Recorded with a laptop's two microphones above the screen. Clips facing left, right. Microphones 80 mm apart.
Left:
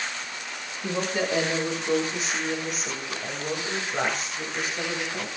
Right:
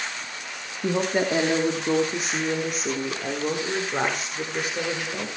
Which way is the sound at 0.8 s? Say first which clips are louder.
Right 4 dB; 45° right (ahead or behind).